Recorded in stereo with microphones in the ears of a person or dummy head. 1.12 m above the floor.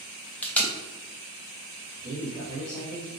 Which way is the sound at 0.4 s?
10° left (ahead or behind).